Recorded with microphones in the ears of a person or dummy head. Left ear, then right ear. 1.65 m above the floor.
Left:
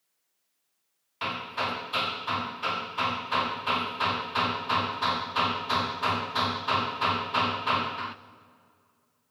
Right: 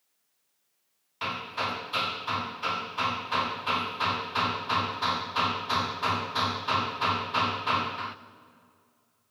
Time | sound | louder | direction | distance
1.2 | hammering | left 1 dB | 10° left (ahead or behind) | 0.5 m